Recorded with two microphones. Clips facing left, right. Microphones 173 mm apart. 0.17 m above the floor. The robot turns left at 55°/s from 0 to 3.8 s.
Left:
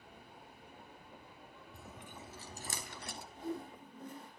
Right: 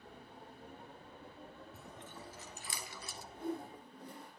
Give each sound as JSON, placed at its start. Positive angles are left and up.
{"t": 1.7, "sound": "chewing", "side_deg": -5, "distance_m": 1.1}
{"t": 3.3, "sound": "a whoosh", "side_deg": -60, "distance_m": 6.5}